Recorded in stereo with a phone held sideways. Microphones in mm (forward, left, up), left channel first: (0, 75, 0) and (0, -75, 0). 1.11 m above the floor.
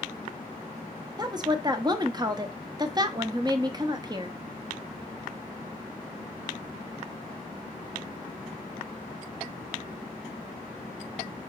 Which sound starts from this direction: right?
A woman speaking, at 1.2 s.